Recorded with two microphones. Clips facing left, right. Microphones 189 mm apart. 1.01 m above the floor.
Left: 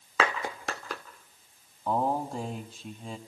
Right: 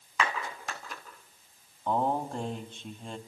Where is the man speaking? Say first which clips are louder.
Even; 5° left (ahead or behind), 2.5 m.